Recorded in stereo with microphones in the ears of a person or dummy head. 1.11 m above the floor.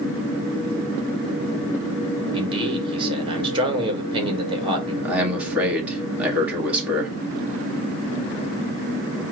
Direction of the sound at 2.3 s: 30° right (ahead or behind).